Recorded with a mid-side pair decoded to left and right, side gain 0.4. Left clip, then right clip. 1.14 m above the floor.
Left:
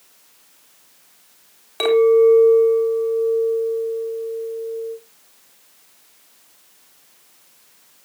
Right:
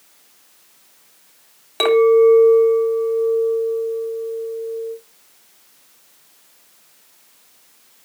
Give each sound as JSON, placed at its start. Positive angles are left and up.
{"t": 1.8, "sound": "a clink", "azimuth_deg": -30, "distance_m": 4.0}